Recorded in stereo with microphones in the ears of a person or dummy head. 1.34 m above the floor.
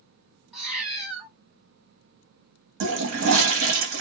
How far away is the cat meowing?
About 1.3 m.